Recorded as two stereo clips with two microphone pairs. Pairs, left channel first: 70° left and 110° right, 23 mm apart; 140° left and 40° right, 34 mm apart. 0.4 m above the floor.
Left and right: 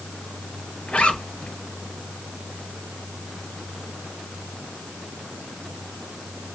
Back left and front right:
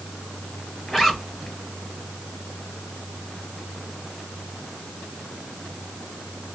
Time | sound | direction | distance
0.9 | a zipper | 55° left | 2.0 m